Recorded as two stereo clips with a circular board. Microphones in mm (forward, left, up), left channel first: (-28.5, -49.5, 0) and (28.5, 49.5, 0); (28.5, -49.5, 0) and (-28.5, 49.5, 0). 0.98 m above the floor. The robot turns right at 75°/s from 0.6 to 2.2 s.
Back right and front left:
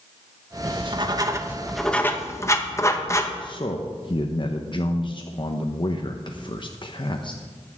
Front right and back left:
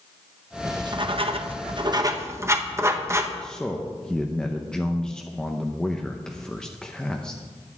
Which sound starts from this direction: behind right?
A man speaking, at 3.4 s.